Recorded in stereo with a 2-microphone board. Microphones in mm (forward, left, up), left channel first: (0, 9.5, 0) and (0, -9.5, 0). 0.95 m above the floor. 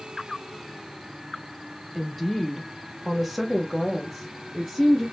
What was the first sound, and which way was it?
A woman speaking, 5° right (ahead or behind).